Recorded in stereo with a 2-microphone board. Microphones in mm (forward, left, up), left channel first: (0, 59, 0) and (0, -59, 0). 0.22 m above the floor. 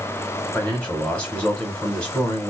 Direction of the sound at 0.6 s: 10° left (ahead or behind).